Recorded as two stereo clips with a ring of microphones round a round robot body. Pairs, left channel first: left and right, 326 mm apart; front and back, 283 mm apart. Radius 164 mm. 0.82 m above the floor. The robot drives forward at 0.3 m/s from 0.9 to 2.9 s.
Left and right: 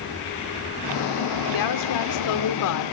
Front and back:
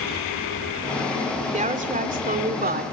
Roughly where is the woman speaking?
Behind left.